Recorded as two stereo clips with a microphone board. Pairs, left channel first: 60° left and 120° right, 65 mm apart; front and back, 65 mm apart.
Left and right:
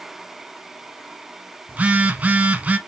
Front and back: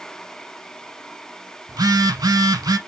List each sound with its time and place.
1.7 s a phone buzzing: 170° left, 0.7 m